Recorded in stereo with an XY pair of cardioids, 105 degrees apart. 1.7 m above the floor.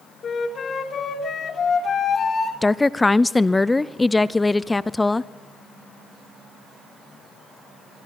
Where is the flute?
50° left, 3 m.